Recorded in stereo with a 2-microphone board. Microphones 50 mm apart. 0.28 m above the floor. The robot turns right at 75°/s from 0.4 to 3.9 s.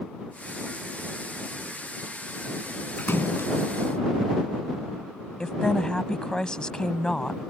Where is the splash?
40° left; by 3.5 s 80° left.